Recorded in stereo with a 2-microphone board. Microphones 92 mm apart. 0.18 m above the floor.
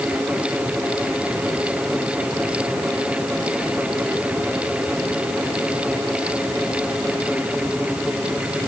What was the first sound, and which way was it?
Only background noise.